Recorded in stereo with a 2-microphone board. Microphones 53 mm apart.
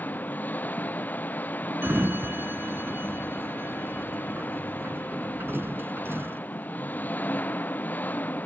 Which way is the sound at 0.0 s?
35° left (ahead or behind).